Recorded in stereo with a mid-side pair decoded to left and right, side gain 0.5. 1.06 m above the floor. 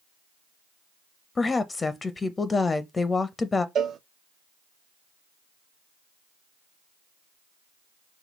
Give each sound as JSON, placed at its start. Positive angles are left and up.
{"t": 1.4, "sound": "a woman speaking", "azimuth_deg": 25, "distance_m": 0.6}
{"t": 3.8, "sound": "a cowbell", "azimuth_deg": -50, "distance_m": 0.5}